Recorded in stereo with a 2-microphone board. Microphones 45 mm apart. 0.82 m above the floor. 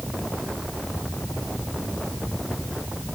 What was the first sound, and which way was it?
Only background noise.